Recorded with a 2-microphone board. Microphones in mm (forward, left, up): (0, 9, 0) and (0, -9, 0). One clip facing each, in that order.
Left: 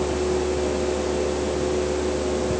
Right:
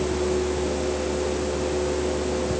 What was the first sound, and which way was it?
Only background noise.